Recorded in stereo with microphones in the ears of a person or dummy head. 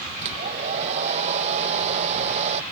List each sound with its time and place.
0.2 s a hair dryer: 35° right (ahead or behind)